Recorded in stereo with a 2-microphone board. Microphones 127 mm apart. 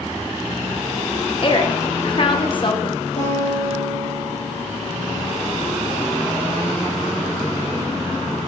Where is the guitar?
45° left (ahead or behind), 3 m.